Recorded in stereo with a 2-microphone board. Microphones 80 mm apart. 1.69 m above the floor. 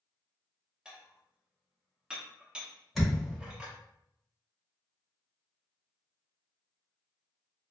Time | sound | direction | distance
0.8 | dishes clattering | 10° right (ahead or behind) | 0.8 m
3.0 | a thud | centre (ahead or behind) | 1.5 m